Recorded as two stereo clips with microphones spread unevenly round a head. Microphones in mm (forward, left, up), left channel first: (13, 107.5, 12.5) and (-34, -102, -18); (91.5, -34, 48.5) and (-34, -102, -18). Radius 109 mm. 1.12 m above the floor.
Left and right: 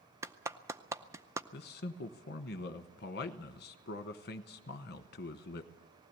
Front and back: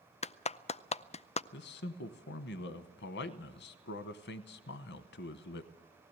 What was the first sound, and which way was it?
A clap, 30° right.